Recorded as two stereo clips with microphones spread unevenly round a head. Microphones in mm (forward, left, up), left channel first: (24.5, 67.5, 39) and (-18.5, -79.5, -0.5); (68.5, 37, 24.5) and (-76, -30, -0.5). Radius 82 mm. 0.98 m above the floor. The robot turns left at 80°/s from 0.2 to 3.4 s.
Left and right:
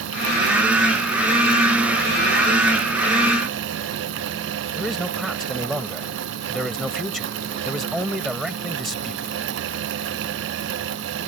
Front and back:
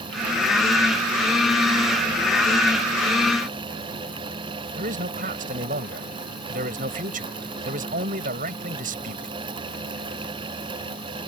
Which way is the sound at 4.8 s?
165° left.